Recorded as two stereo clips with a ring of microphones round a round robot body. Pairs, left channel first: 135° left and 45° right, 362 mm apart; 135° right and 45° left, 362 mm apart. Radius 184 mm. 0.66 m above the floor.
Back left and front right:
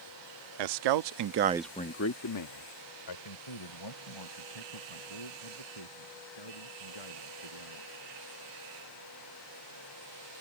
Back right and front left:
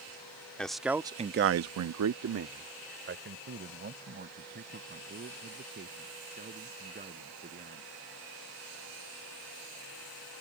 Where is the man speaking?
50° right; by 7.9 s 115° left.